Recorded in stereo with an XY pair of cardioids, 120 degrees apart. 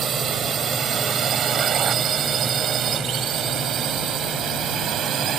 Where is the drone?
45° right; by 5.4 s 55° right.